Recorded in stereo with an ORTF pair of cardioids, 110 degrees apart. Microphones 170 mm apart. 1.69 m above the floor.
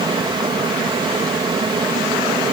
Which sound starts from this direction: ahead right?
A fan, at 0.0 s.